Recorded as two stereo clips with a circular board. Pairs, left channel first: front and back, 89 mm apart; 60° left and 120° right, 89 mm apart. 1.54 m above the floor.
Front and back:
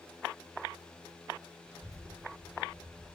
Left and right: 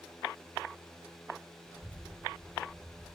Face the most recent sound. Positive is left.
turn(degrees=150)